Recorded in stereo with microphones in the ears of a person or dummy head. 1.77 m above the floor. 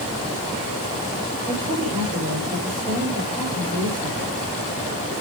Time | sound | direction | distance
1.5 | a woman speaking | 35° right (ahead or behind) | 8.5 m